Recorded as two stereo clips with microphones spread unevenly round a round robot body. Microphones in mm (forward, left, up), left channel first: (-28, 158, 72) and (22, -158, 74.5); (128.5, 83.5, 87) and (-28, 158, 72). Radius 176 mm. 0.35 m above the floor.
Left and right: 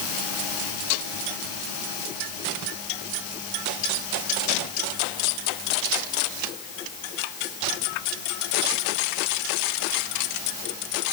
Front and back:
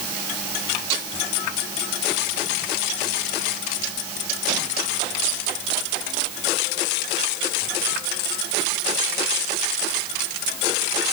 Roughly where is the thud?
I don't hear a thud.